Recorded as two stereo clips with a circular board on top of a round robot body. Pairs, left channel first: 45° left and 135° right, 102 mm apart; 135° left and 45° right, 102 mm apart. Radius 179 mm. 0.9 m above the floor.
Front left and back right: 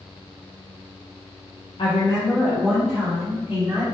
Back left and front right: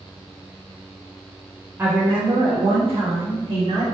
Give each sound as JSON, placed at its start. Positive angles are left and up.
{"t": 1.8, "sound": "a woman speaking", "azimuth_deg": 20, "distance_m": 1.0}